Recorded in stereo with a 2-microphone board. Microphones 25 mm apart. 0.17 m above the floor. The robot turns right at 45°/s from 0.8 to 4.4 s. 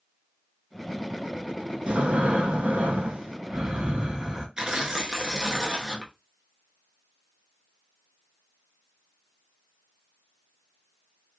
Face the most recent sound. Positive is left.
turn(degrees=-20)  # may be behind; listen again after turning